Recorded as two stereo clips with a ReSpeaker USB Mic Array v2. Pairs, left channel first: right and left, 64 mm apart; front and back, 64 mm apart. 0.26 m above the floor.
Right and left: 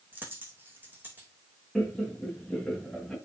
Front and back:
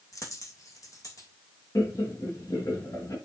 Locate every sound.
0.1 s a dropped coin: 30° left, 4 m
1.8 s laughter: 10° right, 3.5 m